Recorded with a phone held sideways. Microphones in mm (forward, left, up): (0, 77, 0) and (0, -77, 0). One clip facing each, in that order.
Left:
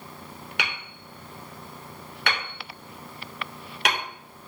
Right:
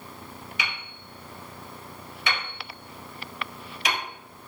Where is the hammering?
60° left (ahead or behind), 3 m.